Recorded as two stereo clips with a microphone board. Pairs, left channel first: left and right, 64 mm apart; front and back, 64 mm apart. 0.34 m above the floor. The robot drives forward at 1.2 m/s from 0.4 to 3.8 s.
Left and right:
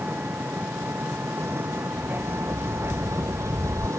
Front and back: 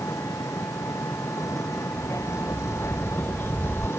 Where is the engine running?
35° right; by 4.0 s 50° right.